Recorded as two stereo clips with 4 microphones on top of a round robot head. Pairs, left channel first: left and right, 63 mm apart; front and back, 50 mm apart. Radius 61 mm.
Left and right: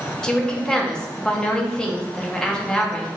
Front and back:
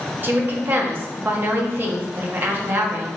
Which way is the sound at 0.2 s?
165° left.